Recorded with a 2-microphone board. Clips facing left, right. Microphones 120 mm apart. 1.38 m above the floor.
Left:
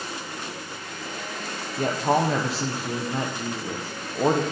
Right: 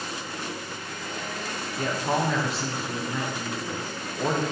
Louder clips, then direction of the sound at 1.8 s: Left 4 dB; 30° left (ahead or behind).